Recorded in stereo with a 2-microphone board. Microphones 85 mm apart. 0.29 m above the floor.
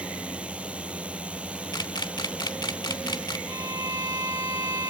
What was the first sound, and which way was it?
A drone, 15° right (ahead or behind).